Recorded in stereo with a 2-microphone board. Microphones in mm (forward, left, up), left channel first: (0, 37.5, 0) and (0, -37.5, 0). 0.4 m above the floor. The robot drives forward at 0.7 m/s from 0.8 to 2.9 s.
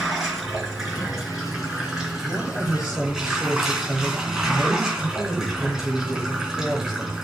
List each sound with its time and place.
0.0 s running water: 5° right (ahead or behind), 4.5 m; by 7.2 s 10° right (ahead or behind), 3.5 m
2.2 s a woman speaking: 5° right (ahead or behind), 7.5 m; by 7.2 s 10° right (ahead or behind), 7 m